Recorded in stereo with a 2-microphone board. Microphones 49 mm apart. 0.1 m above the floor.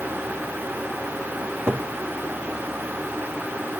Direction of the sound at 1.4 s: 55° right (ahead or behind).